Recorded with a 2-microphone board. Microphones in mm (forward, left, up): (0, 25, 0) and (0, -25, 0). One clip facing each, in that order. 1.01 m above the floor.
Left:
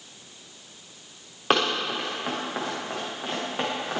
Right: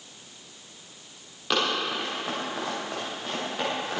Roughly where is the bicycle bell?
No bicycle bell in this recording.